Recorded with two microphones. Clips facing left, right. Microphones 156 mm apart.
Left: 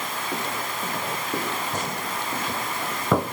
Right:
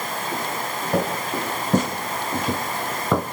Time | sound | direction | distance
0.9 | footsteps | 80° right | 3.5 m